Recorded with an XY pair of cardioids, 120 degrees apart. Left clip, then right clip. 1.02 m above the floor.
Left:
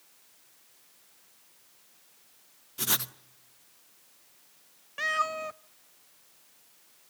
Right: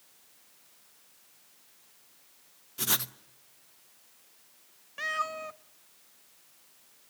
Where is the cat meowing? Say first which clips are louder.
Left 3 dB; 20° left, 0.6 m.